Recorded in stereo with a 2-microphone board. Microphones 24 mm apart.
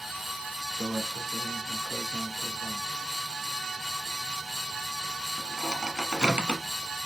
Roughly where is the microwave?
Right.